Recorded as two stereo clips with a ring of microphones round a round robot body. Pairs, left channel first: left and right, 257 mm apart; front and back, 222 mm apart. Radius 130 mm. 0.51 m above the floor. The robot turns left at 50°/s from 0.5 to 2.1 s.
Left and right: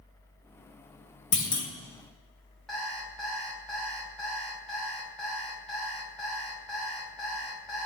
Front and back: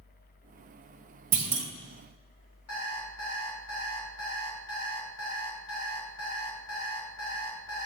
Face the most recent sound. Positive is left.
turn(degrees=0)